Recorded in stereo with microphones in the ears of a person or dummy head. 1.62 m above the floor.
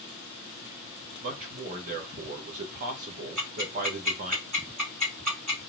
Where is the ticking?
35° right (ahead or behind), 1.7 m.